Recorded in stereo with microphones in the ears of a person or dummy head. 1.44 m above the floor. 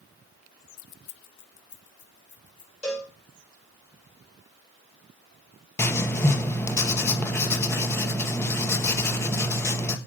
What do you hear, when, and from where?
0.8 s keys jangling: 40° left (ahead or behind), 0.5 m; by 2.7 s 35° left (ahead or behind), 3 m
2.8 s a cowbell: 5° left (ahead or behind), 5.5 m
5.8 s writing: 10° left (ahead or behind), 1.6 m